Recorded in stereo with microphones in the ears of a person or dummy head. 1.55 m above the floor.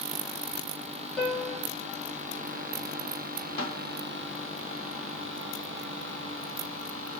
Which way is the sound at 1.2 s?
10° left (ahead or behind).